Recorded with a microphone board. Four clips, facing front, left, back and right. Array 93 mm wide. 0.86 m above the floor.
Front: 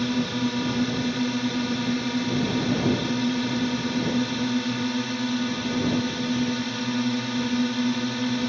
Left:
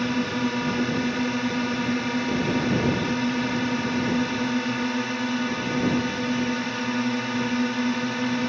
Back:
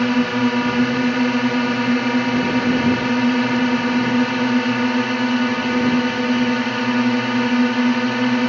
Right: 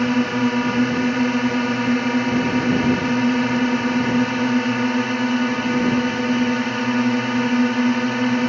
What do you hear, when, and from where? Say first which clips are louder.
0.0 s a drone: right 6 dB, back 8 dB; 160° right